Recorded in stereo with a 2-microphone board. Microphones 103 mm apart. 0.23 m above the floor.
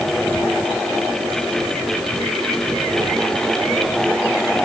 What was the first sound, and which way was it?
Only background noise.